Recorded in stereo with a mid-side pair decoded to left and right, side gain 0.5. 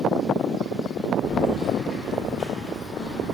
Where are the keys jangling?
55° left, 3 m; by 3.4 s 45° left, 4 m.